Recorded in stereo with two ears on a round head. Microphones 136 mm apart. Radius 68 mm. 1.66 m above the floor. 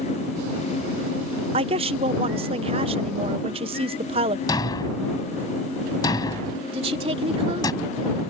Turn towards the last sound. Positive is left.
turn(degrees=-40)  # may be behind; listen again after turning